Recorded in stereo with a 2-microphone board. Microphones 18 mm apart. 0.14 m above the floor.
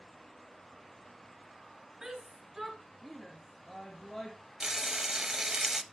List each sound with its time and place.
2.0 s a shout: 40° right (ahead or behind), 1.5 m; by 4.4 s 30° left (ahead or behind), 2 m
4.6 s frying: 25° right (ahead or behind), 0.7 m